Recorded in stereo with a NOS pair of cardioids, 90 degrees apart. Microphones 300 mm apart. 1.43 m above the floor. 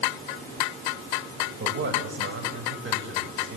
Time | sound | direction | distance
1.6 | a man speaking | 40° right | 7.5 m